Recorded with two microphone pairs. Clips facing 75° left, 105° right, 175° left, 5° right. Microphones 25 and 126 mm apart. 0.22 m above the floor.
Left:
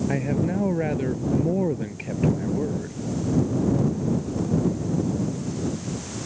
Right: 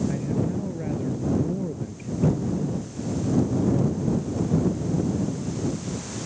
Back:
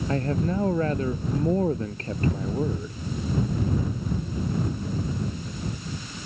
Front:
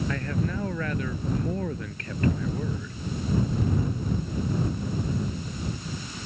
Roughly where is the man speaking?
Behind left.